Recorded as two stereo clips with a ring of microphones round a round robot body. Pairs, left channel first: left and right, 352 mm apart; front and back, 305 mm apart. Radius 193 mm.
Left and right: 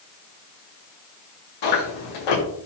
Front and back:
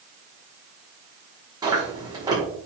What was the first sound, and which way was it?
Chewing, 100° left.